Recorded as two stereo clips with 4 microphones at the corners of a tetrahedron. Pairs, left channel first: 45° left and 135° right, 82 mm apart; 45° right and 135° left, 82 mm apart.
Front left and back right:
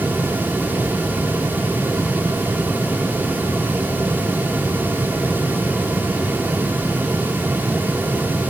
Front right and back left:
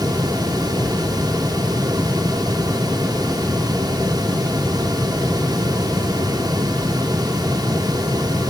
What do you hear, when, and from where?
Only background noise.